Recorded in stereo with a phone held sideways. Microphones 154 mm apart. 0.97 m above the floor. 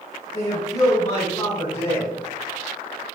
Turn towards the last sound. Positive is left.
turn(degrees=40)  # may be behind; listen again after turning